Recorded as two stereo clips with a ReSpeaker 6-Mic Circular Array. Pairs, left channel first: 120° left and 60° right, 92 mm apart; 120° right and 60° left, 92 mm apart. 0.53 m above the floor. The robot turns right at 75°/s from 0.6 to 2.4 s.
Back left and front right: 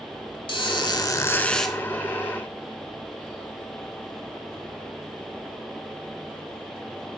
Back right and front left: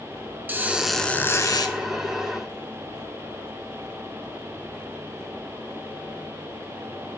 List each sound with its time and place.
0.5 s a squeak: 130° left, 0.9 m; by 1.8 s 145° right, 0.9 m